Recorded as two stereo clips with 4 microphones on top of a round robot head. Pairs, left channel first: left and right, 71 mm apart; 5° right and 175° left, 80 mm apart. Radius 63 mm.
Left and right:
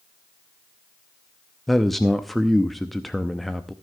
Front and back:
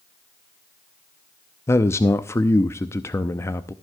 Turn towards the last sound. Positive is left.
turn(degrees=0)